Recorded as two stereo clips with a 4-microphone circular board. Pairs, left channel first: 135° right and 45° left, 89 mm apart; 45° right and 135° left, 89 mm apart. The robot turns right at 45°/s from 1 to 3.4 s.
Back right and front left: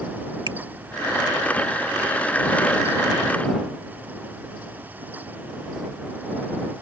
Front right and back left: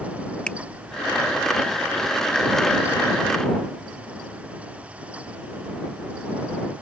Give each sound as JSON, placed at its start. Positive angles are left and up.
{"t": 0.5, "sound": "a finger snap", "azimuth_deg": 30}